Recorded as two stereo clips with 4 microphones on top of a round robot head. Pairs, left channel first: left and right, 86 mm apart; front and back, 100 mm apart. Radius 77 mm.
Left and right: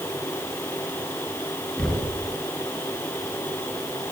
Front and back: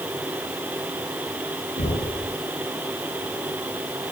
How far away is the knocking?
About 5.5 m.